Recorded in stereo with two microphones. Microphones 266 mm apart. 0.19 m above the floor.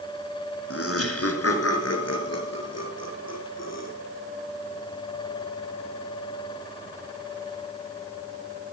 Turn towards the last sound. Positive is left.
turn(degrees=75)  # may be behind; listen again after turning